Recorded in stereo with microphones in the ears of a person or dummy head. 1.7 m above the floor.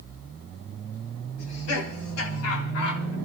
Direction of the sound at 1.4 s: 80° left.